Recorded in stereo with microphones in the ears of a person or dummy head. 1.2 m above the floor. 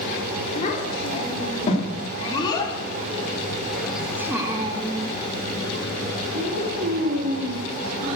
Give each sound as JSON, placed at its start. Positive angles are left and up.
{"t": 0.6, "sound": "a child speaking", "side_deg": 40, "distance_m": 3.0}